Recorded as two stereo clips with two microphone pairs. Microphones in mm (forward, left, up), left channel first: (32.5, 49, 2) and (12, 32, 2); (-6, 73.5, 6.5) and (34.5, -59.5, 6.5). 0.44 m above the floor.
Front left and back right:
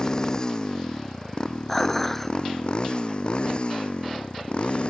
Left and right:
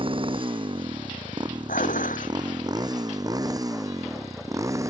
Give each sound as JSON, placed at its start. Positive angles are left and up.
{"t": 0.0, "sound": "a motorcycle", "azimuth_deg": -25}
{"t": 1.7, "sound": "dishes clattering", "azimuth_deg": 115}